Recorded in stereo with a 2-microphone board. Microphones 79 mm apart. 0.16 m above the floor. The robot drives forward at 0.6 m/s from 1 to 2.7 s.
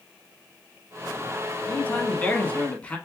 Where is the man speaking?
20° left (ahead or behind), 1.0 m.